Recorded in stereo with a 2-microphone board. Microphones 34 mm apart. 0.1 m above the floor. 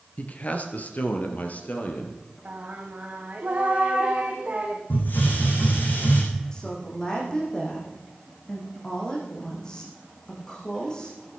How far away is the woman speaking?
About 7 m.